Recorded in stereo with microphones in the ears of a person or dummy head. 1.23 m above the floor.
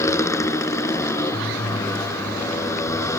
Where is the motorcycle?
20° left (ahead or behind).